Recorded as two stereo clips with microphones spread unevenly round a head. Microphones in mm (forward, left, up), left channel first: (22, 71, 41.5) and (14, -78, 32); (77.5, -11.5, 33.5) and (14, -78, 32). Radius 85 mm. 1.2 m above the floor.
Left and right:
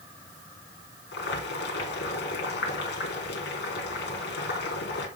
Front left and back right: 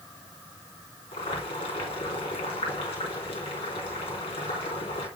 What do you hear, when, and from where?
1.1 s boiling: 90° left, 3.5 m